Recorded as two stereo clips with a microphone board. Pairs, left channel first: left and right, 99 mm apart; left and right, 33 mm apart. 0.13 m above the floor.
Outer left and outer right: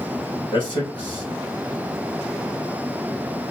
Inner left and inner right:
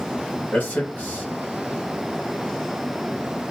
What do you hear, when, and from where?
0.5 s a man speaking: 50° left (ahead or behind), 3 m